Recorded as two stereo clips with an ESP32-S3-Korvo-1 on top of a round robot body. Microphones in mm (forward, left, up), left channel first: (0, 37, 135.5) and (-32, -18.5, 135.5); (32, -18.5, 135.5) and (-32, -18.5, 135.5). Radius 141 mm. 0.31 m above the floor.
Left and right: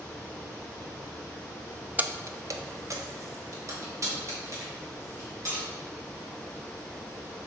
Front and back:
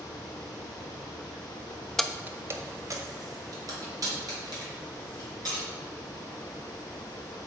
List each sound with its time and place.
2.0 s keys jangling: 80° right, 0.6 m; by 5.7 s 165° right, 4 m